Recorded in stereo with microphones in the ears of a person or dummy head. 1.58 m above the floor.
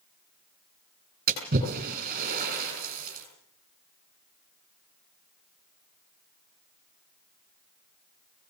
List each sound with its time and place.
1.3 s a splash: 40° right (ahead or behind), 7.5 m